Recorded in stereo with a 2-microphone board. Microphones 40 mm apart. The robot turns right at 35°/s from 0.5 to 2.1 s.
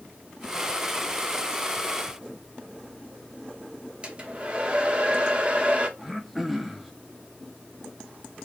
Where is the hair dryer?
30° right (ahead or behind), 0.9 m.